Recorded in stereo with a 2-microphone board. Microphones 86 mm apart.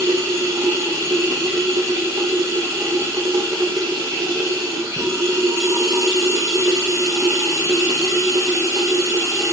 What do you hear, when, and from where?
0.0 s running water: 35° right (ahead or behind), 6.5 m